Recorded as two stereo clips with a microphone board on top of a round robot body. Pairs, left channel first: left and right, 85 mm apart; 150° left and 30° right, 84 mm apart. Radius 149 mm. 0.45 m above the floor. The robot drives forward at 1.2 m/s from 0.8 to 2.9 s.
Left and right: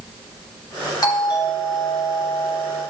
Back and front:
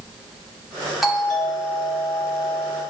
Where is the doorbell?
60° left, 2.5 m; by 2.8 s 120° left, 2.5 m.